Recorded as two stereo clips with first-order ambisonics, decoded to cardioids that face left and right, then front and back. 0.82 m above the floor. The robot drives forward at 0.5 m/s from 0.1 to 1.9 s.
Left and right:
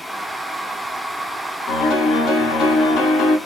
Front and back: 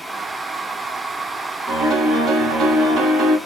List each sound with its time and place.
1.7 s a piano: 125° left, 1.0 m; by 3.4 s 130° left, 1.1 m